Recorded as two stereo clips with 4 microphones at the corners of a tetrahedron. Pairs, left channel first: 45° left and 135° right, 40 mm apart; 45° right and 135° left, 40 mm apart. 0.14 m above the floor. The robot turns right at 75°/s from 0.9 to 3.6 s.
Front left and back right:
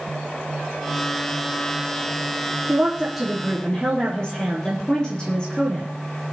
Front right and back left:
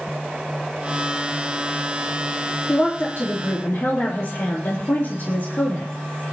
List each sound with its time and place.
2.7 s a woman speaking: 90° right, 3.5 m; by 5.9 s 20° right, 3.5 m